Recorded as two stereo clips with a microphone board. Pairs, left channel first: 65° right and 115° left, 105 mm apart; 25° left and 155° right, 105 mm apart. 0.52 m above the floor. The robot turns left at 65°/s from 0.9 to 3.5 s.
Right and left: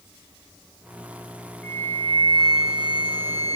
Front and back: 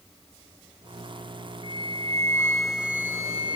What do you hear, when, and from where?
1.6 s a flute: straight ahead, 0.8 m; by 3.6 s 125° right, 0.8 m